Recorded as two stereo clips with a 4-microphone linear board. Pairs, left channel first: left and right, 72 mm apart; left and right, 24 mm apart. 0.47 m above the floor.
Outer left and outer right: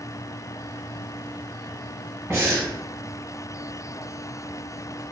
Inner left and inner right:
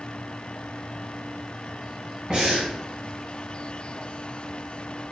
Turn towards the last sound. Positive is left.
turn(degrees=-35)  # may be behind; listen again after turning